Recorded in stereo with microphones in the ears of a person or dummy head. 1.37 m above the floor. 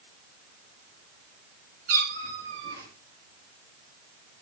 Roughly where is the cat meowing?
Right.